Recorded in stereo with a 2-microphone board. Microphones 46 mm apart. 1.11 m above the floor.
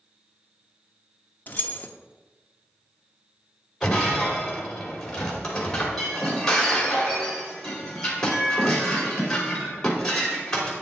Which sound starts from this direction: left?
Keys jangling, at 1.5 s.